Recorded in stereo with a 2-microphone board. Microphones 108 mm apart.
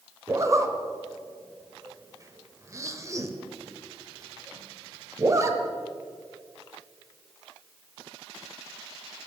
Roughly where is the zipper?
Right.